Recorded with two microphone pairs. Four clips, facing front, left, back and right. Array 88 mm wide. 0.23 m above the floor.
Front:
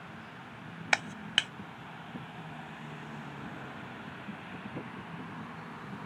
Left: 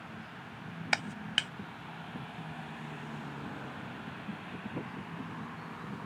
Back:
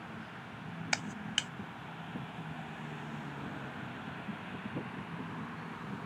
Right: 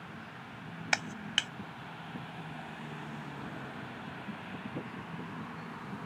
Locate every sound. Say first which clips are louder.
0.9 s a clap: even, front 7 dB; 5° left